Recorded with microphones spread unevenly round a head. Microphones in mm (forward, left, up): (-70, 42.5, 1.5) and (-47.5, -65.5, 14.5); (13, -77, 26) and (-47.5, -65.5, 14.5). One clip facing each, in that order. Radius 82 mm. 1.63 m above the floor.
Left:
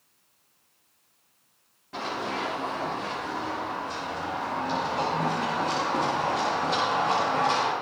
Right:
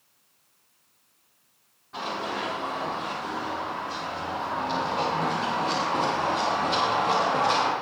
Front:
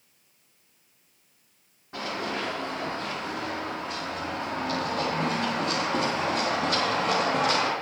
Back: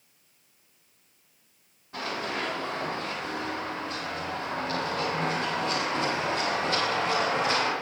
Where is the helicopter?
I don't hear a helicopter.